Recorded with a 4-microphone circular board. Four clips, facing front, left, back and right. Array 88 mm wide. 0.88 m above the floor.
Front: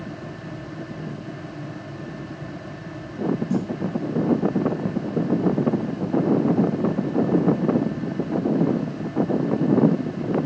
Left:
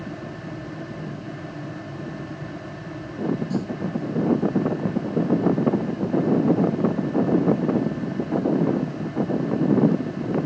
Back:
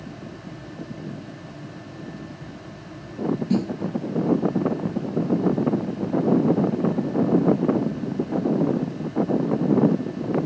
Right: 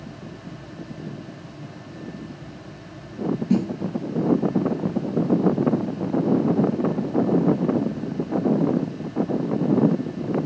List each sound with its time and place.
3.5 s a snare drum: 110° right